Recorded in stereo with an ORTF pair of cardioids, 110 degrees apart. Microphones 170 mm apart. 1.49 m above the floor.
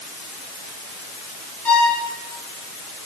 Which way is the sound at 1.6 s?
10° left.